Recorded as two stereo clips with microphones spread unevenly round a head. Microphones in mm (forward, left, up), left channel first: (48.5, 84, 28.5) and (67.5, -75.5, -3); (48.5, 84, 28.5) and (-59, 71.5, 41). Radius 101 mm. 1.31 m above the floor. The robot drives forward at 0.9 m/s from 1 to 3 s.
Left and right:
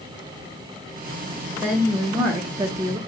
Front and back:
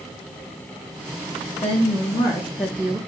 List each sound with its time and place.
1.6 s a woman speaking: 15° right, 1.2 m; by 3.0 s 125° right, 0.5 m